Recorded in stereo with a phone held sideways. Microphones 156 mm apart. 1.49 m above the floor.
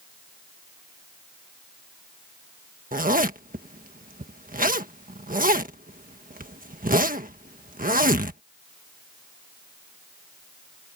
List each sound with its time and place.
2.9 s a zipper: 65° right (ahead or behind)